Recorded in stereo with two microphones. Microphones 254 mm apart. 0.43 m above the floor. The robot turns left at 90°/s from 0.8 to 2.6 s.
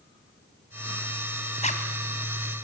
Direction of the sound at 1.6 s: 25° left (ahead or behind).